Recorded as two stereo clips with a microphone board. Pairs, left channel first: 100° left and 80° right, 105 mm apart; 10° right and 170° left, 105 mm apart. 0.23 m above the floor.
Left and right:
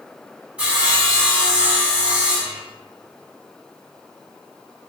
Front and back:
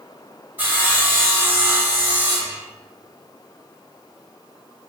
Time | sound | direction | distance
0.6 | sawing | 140° right | 1.0 m